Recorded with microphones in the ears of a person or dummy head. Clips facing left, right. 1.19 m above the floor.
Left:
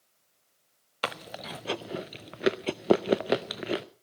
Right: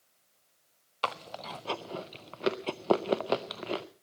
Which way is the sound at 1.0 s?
20° left (ahead or behind).